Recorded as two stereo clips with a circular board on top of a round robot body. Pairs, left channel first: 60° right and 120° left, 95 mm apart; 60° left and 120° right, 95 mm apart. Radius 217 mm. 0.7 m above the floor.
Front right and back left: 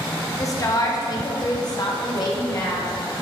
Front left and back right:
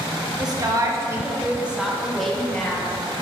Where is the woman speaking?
100° right, 1.3 m; by 2.9 s 15° right, 1.7 m.